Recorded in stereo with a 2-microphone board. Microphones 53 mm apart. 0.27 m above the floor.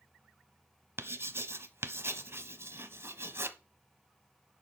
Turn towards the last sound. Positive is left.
turn(degrees=-50)  # may be behind; listen again after turning